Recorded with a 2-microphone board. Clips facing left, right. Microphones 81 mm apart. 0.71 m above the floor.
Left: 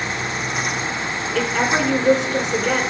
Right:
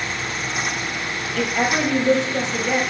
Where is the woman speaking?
70° left (ahead or behind), 3 m.